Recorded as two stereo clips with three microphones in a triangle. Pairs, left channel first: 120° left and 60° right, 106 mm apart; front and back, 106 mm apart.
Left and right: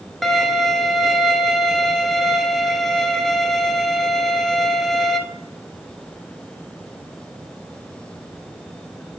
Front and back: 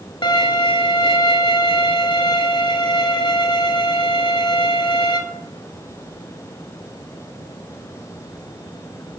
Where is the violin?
30° left, 0.8 m.